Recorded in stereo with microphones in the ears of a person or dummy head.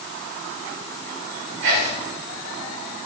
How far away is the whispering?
About 1.5 m.